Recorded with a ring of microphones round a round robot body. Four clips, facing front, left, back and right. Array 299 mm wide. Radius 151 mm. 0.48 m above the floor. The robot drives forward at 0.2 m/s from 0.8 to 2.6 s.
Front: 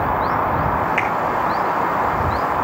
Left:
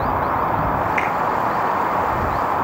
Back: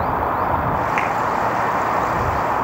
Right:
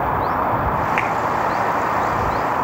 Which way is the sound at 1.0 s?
105° right.